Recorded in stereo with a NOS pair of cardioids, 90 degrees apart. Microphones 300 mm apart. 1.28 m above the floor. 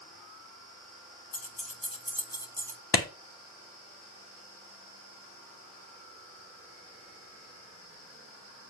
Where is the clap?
35° left, 2.5 m.